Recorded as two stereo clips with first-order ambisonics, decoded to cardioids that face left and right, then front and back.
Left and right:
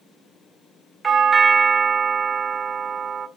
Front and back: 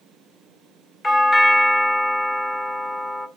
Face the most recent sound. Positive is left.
turn(degrees=-30)